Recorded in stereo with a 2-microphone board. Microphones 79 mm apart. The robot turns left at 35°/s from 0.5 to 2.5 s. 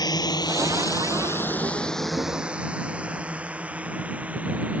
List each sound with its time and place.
0.0 s a drone: 55° left (ahead or behind); by 4.8 s 20° right (ahead or behind)